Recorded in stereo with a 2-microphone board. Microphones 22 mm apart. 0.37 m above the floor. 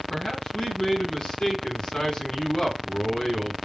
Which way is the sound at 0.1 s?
55° left (ahead or behind).